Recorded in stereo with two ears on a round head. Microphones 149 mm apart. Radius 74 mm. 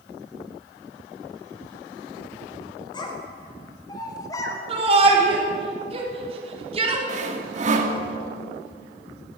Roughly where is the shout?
Right.